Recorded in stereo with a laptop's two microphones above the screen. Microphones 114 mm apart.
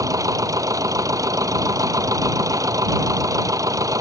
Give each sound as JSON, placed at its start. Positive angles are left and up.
{"t": 0.0, "sound": "a machine running", "side_deg": -30}